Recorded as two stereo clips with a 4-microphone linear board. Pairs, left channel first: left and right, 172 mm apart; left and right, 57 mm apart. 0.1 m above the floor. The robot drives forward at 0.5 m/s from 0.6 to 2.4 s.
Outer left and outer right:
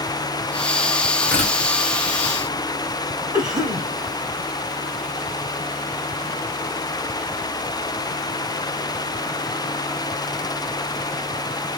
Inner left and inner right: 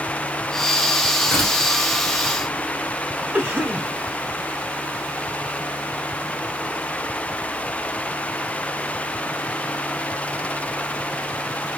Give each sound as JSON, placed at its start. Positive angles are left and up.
{"t": 1.2, "sound": "tearing paper", "side_deg": 10, "distance_m": 1.5}
{"t": 3.3, "sound": "a cough", "side_deg": -25, "distance_m": 1.1}